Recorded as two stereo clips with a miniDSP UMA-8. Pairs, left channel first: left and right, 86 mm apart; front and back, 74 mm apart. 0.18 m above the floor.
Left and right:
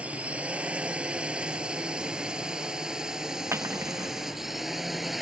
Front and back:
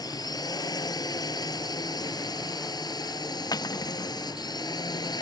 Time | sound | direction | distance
0.0 | a drone | 15° right | ?
3.5 | cutlery clinking | 30° right | ?